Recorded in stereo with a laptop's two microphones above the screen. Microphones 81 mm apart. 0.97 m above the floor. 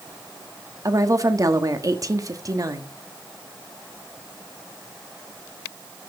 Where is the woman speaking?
40° right (ahead or behind), 1.3 m.